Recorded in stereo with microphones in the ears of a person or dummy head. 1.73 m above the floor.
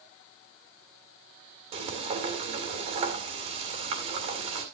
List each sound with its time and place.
1.7 s frying: 35° right (ahead or behind), 2 m